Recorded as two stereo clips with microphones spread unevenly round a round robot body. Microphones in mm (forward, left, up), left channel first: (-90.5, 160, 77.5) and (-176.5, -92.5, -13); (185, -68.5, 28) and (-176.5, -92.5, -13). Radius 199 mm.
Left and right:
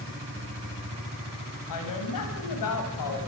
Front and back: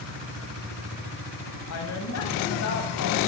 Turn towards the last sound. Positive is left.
turn(degrees=60)